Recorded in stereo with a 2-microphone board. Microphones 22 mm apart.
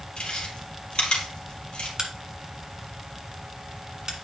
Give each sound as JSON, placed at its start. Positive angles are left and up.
{"t": 0.2, "sound": "chewing", "side_deg": 50, "distance_m": 3.0}
{"t": 2.0, "sound": "a crack", "side_deg": -30, "distance_m": 1.5}